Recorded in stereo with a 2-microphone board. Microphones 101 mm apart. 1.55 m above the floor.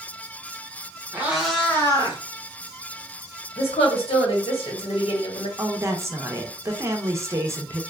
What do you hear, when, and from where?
1.1 s a cat meowing: 20° right (ahead or behind), 0.9 m; by 2.2 s 40° left (ahead or behind), 0.9 m
3.6 s a woman speaking: 80° left, 1.1 m
5.6 s a woman speaking: 30° right (ahead or behind), 0.6 m